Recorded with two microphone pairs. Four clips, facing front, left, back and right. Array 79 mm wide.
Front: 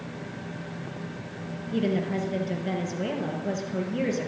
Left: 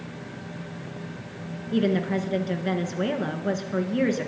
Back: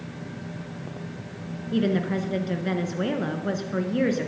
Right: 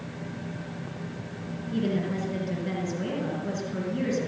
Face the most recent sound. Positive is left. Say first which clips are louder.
# left 5 dB, back 2 dB
turn(degrees=140)